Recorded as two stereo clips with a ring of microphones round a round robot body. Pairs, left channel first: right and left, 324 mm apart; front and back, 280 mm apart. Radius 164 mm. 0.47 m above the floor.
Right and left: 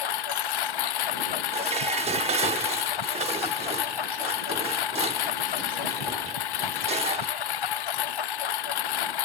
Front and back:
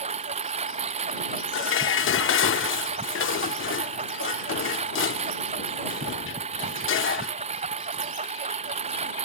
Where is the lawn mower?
105° right.